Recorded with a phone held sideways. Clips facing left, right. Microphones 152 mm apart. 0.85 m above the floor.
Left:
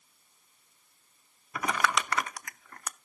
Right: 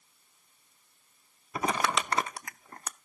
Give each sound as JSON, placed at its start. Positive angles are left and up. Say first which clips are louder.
{"t": 1.6, "sound": "crumpling", "louder": "right 1 dB", "side_deg": -30, "distance_m": 0.5}